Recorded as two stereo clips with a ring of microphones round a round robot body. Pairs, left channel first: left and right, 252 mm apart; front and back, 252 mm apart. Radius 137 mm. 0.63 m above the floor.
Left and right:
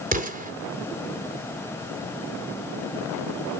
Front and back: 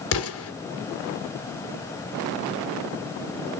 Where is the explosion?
35° right, 2.5 m.